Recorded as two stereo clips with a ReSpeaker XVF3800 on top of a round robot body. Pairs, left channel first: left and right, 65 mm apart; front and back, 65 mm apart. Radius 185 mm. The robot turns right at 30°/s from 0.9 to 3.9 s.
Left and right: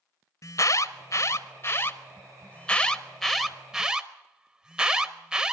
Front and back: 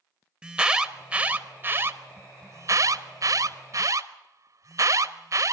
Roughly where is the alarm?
Left.